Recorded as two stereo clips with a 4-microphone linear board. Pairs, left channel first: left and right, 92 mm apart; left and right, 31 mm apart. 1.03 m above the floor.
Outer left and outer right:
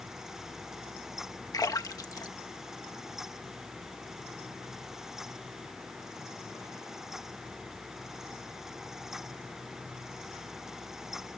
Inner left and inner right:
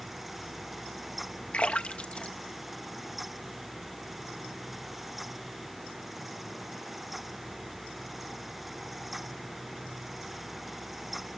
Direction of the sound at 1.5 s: 40° left (ahead or behind).